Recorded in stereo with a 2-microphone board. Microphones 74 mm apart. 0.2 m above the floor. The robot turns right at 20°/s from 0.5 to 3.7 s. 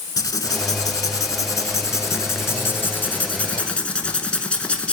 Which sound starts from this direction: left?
Writing, at 0.2 s.